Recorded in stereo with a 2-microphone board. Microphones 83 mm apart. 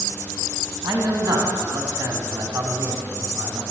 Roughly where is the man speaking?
Right.